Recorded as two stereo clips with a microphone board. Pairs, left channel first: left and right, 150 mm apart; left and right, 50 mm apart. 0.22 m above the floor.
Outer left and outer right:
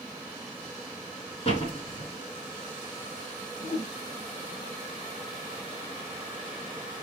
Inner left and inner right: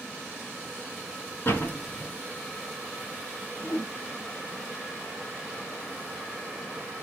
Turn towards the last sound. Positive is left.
turn(degrees=60)  # may be behind; listen again after turning